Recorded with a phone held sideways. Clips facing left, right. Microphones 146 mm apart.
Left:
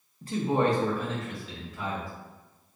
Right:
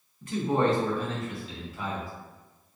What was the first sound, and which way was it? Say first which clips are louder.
A man speaking: even; 35° left (ahead or behind).